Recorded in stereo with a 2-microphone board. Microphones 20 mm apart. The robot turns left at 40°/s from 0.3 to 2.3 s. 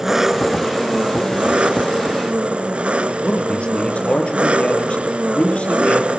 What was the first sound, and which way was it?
An engine running, 25° right.